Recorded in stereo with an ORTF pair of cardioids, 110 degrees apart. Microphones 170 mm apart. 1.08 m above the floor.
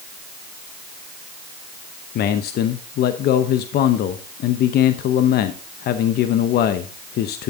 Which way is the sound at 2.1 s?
65° left.